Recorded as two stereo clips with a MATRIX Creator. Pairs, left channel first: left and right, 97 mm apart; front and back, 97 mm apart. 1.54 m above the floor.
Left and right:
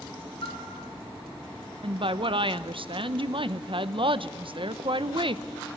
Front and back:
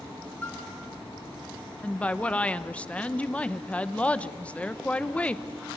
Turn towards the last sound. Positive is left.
turn(degrees=-75)